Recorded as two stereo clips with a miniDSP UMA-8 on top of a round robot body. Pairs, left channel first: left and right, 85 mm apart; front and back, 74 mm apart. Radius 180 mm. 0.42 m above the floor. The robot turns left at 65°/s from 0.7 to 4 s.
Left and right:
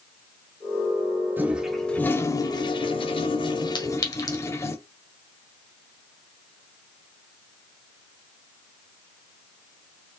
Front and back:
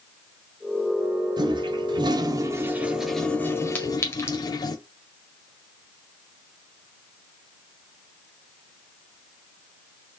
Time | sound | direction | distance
1.4 | a toilet flushing | 155° right | 0.6 m
3.8 | a clink | 70° left | 1.6 m